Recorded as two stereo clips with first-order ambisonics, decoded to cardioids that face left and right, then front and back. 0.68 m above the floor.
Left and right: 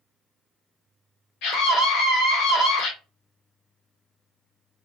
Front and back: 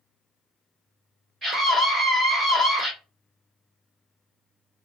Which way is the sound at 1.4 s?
120° left.